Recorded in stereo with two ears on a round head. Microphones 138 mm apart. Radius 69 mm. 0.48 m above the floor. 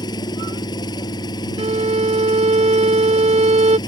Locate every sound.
0.0 s an engine running: 30° left (ahead or behind)
1.6 s a violin: 40° right (ahead or behind)